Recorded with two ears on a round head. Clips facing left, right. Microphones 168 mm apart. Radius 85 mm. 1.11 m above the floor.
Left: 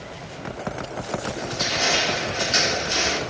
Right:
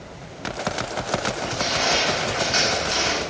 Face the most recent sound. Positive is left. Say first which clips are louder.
# right 2 dB
turn(degrees=25)  # may be behind; listen again after turning